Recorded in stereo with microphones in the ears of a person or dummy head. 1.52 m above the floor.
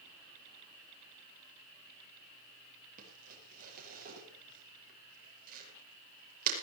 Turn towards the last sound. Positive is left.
turn(degrees=-50)  # may be behind; listen again after turning